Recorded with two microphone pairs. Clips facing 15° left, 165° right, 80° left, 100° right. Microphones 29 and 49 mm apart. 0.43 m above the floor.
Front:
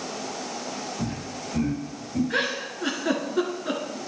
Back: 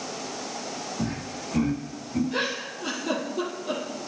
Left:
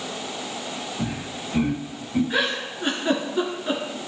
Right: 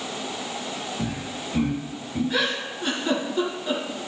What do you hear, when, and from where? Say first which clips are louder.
1.0 s laughter: even, even; 150° left, 1.7 m; by 2.2 s 120° left, 2.0 m
2.3 s a giggle: front 2 dB, left 1 dB; 10° left, 3 m